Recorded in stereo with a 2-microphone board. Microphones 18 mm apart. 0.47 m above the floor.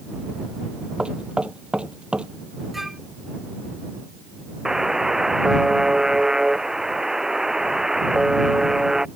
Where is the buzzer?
25° right (ahead or behind).